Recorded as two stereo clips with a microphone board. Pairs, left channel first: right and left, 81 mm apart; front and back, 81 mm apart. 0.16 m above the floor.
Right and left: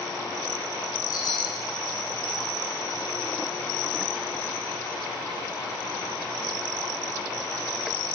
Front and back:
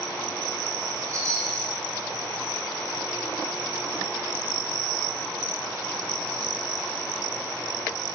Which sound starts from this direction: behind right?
A chime, at 1.1 s.